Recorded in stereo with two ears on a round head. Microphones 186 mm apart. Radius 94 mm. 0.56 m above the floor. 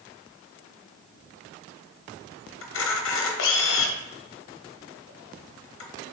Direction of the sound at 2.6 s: 65° left (ahead or behind).